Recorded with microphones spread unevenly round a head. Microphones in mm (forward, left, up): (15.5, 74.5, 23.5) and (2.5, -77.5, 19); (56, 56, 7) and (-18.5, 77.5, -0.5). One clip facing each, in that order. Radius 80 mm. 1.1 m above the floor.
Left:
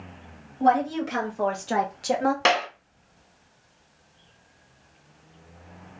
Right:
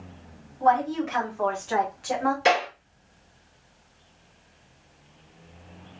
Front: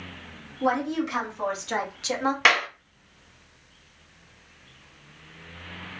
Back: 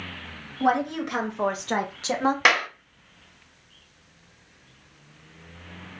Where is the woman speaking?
135° left, 1.9 m; by 2.4 s 115° left, 1.0 m.